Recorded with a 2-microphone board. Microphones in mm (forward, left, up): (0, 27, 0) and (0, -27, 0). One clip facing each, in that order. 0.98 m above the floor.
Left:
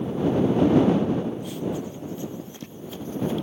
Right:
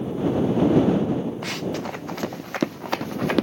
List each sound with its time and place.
1.4 s running footsteps: 80° right; by 3.4 s 75° right (ahead or behind)